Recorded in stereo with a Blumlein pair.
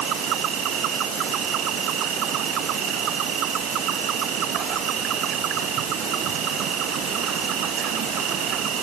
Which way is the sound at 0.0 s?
35° right.